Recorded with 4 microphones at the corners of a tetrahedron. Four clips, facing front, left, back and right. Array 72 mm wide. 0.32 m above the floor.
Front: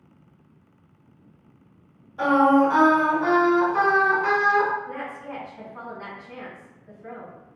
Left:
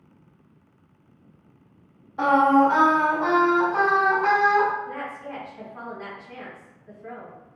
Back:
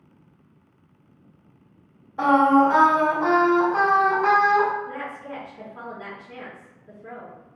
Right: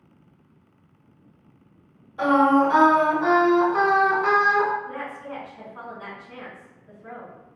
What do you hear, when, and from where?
2.2 s singing: 160° left, 1.5 m
4.9 s a woman speaking: 50° left, 1.7 m